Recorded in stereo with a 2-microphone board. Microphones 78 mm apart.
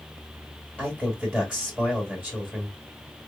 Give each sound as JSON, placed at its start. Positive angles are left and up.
{"t": 0.8, "sound": "a man speaking", "side_deg": -5, "distance_m": 1.8}